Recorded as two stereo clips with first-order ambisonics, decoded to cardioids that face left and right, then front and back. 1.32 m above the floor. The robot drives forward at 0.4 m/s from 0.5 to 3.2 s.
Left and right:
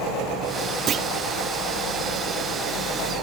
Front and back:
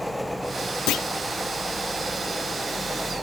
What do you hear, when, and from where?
0.9 s a clunk: 30° right; by 1.1 s 35° right